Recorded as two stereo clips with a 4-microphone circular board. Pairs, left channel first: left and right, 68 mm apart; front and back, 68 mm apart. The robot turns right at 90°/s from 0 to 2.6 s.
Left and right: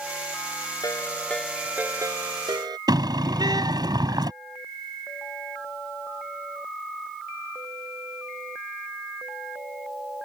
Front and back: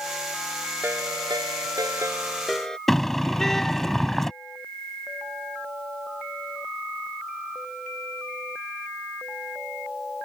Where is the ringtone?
120° left; by 2.8 s 80° right.